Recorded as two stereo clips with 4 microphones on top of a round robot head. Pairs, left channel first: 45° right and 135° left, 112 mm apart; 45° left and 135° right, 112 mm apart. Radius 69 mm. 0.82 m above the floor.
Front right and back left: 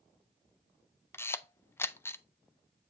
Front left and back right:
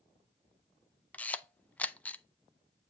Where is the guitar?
No guitar in this recording.